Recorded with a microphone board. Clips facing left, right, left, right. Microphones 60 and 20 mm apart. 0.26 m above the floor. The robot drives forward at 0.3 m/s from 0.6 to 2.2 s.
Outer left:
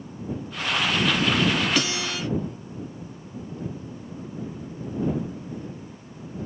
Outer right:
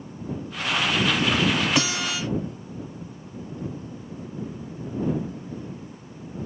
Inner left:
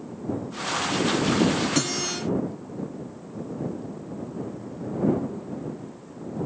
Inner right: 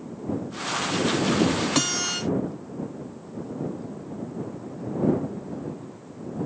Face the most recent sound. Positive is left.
turn(degrees=-15)  # may be behind; listen again after turning